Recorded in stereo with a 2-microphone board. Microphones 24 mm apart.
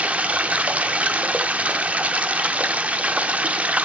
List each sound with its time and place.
0.0 s running water: 85° right, 0.8 m